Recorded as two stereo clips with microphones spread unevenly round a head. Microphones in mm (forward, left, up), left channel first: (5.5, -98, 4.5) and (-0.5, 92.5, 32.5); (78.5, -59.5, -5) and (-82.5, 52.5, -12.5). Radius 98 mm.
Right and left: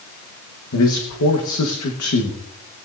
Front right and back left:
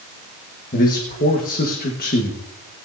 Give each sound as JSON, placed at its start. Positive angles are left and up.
{"t": 0.7, "sound": "a man speaking", "azimuth_deg": -80, "distance_m": 1.4}